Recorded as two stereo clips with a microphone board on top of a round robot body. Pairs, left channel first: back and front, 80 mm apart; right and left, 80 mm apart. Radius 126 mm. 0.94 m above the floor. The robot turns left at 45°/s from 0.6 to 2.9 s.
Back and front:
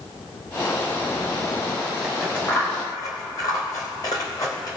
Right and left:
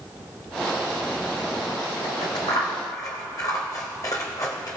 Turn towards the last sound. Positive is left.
turn(degrees=-135)